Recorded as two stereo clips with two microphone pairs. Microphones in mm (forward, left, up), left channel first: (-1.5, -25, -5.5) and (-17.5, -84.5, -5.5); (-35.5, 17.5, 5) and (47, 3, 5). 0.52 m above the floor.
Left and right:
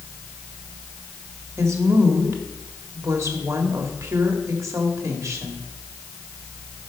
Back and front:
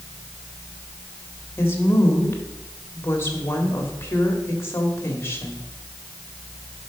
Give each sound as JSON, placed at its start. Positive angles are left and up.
{"t": 1.6, "sound": "a woman speaking", "azimuth_deg": -135, "distance_m": 1.7}